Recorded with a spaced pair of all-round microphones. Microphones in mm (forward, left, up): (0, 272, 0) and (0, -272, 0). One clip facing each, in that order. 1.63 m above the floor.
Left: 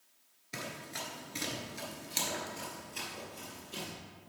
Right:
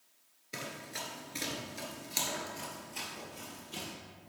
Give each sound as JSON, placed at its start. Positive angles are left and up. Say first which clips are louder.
{"t": 0.5, "sound": "running footsteps", "louder": "even", "side_deg": 15, "distance_m": 1.7}